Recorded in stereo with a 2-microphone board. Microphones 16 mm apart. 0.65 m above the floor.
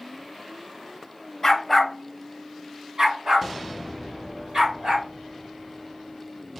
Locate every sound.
1.4 s a dog barking: 25° left (ahead or behind), 0.5 m; by 5.1 s 55° right (ahead or behind), 2.5 m